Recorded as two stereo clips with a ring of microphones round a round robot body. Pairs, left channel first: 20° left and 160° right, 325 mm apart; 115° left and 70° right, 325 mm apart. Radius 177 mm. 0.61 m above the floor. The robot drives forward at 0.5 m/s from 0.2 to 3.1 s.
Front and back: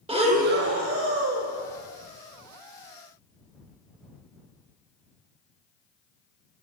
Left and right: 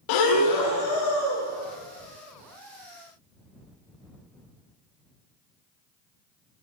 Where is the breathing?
130° left, 0.5 m; by 1.5 s 160° left, 1.0 m.